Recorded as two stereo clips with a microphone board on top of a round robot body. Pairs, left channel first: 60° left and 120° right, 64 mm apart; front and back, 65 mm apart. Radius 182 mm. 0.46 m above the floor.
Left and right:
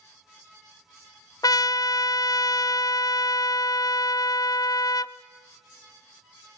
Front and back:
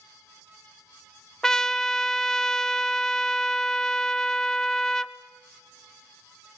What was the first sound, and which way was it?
A trumpet, 85° left.